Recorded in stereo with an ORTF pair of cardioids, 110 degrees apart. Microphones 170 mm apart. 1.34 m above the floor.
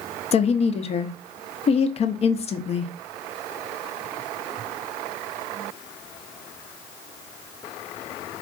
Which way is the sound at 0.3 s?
40° left.